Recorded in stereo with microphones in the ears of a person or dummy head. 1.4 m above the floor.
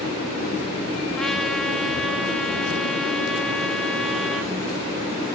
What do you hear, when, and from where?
1.2 s a trumpet: centre (ahead or behind), 3.5 m